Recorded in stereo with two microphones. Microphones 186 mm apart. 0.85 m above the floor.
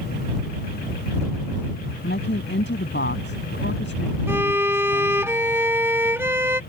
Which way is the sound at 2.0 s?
75° left (ahead or behind).